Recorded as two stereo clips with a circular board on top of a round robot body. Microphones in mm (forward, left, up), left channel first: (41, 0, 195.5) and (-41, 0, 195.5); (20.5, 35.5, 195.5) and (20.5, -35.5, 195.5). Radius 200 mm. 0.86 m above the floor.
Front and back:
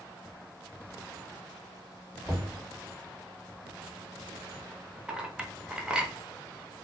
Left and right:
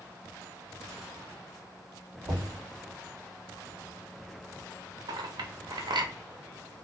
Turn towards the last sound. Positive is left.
turn(degrees=-100)